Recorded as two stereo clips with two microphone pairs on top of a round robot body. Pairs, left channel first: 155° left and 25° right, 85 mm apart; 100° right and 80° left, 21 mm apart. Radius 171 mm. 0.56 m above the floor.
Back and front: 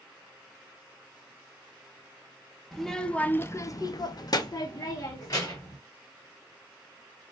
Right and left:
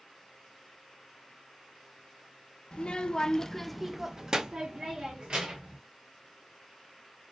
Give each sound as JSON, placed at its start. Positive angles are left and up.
{"t": 2.7, "sound": "a child speaking", "azimuth_deg": -120, "distance_m": 0.7}